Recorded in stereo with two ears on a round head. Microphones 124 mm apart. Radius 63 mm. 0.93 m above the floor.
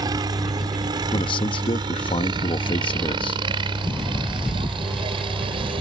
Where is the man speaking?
35° left (ahead or behind).